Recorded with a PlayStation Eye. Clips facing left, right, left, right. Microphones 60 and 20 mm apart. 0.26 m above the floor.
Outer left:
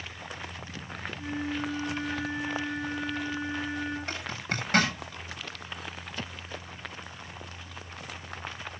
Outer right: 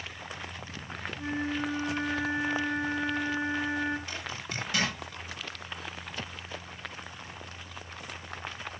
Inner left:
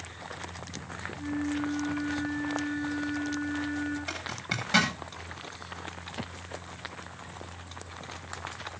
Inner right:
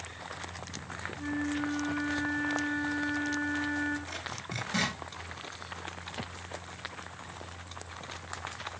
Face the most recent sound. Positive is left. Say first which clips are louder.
# outer left 4 dB, inner left 4 dB
turn(degrees=40)  # may be behind; listen again after turning